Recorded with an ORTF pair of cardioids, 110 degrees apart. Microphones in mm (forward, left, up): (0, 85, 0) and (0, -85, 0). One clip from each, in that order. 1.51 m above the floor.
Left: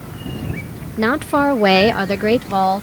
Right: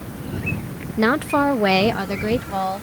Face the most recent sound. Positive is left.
turn(degrees=45)